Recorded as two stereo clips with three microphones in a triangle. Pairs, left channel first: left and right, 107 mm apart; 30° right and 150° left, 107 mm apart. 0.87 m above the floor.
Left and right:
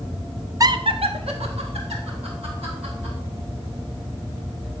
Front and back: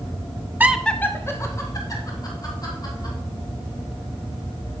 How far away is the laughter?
About 0.5 m.